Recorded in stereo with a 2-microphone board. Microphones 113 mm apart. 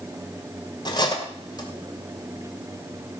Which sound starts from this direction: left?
Cutlery clinking, at 0.8 s.